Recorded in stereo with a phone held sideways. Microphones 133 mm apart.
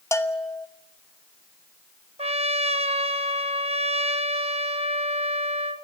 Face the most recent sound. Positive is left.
turn(degrees=-50)  # may be behind; listen again after turning